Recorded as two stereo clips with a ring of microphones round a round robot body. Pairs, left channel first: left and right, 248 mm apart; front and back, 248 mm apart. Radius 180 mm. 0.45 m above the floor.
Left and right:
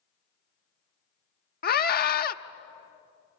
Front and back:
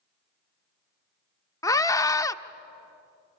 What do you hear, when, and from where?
1.6 s a scream: 70° left, 0.9 m